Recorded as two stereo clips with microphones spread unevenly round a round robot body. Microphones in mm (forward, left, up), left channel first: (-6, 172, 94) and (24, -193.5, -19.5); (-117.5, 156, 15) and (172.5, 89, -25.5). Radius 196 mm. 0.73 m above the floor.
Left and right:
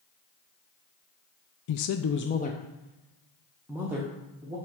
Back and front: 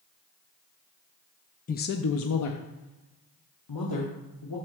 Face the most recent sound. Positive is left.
turn(degrees=-160)